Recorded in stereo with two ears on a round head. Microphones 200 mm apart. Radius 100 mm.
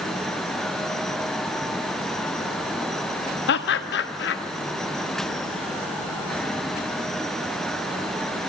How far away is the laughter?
About 1.1 m.